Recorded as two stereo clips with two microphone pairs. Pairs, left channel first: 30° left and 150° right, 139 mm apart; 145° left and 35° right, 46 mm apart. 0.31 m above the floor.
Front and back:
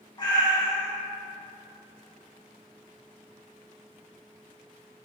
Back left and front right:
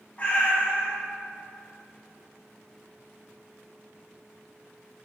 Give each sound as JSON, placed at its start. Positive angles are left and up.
{"t": 0.2, "sound": "a cat meowing", "azimuth_deg": 85, "distance_m": 0.9}